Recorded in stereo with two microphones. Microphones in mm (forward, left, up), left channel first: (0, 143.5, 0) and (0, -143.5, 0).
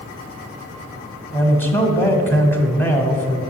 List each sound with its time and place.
1.3 s a man speaking: 5° left (ahead or behind), 1.8 m